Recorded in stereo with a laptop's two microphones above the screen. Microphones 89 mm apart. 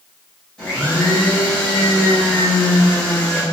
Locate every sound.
0.6 s a blender: 15° left (ahead or behind), 1.6 m